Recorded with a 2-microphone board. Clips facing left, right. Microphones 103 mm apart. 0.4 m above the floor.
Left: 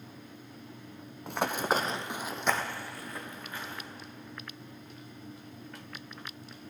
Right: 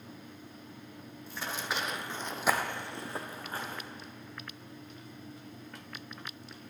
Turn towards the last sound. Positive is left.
turn(degrees=-40)  # may be behind; listen again after turning